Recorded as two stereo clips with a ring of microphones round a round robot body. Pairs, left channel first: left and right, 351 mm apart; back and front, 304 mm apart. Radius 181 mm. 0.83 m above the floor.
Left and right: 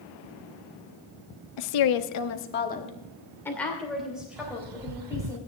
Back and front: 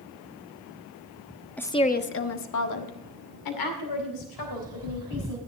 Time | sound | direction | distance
1.6 | a woman speaking | 95° left | 1.2 m
4.4 | a bird | 80° right | 0.7 m